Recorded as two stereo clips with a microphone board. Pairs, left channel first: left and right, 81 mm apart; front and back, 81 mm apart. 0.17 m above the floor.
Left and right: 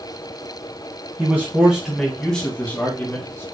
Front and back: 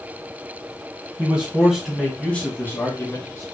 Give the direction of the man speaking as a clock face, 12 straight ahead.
4 o'clock.